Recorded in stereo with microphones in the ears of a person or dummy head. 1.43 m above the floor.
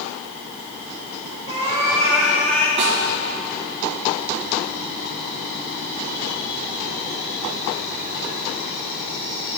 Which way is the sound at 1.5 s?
25° right (ahead or behind).